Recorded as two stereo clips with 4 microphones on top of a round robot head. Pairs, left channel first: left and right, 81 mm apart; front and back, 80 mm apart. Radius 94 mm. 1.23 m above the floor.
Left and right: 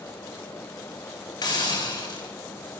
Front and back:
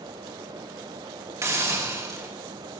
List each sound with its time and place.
1.4 s a hiss: 125° left, 5.5 m